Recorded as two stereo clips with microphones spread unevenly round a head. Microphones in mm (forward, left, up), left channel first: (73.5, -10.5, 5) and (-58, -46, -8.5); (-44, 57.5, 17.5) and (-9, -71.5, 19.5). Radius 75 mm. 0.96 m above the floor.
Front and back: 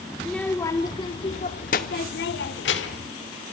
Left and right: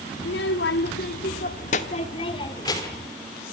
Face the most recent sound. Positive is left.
turn(degrees=30)